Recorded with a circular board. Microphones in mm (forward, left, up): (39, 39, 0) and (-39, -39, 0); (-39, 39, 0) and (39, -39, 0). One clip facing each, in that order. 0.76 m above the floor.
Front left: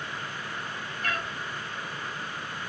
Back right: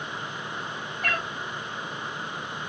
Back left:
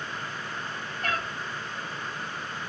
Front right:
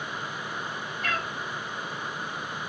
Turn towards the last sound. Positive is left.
turn(degrees=-175)